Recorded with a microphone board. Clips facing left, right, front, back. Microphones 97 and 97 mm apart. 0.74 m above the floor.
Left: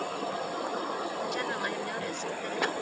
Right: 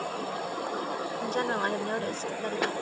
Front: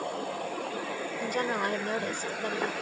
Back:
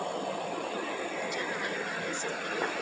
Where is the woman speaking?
35° right.